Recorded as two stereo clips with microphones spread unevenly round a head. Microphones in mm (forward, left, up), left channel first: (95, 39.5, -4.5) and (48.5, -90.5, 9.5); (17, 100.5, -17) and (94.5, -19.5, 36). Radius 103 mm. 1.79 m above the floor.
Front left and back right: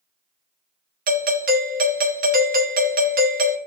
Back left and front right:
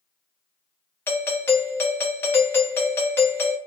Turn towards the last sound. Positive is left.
turn(degrees=-150)